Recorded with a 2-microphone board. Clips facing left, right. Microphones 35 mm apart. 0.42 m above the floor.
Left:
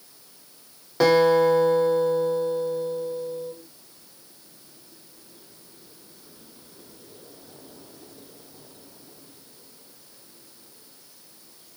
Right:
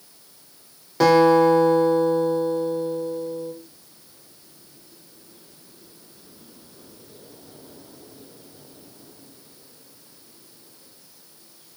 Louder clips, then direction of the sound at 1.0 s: Right 3 dB; 5° left (ahead or behind).